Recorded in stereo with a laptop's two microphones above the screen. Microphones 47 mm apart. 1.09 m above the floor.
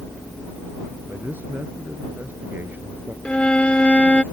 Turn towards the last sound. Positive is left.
turn(degrees=25)  # may be behind; listen again after turning